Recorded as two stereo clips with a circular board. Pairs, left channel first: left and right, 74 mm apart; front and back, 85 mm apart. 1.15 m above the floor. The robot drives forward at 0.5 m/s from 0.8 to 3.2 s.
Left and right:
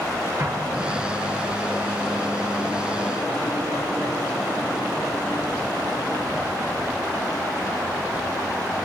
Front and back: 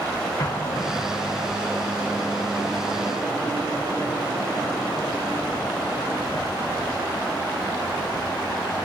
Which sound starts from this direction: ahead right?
An explosion, at 0.4 s.